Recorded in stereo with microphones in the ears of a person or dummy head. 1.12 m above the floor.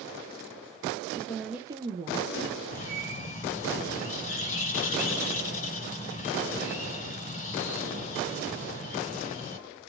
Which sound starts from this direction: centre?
A woman speaking, at 1.1 s.